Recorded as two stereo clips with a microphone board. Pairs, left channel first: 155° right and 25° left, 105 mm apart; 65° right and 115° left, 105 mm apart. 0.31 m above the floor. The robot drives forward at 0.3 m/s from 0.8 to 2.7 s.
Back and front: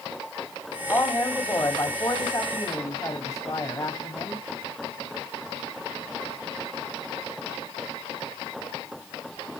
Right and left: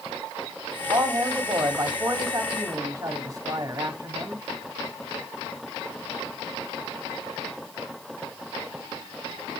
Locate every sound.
0.9 s a man speaking: 145° left, 1.2 m; by 4.5 s 160° left, 1.5 m